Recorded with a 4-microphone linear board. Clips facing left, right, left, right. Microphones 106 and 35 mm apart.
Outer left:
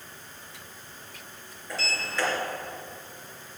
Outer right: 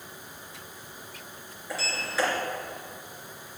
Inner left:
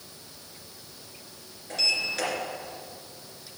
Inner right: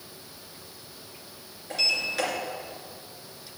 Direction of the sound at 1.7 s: 5° right (ahead or behind).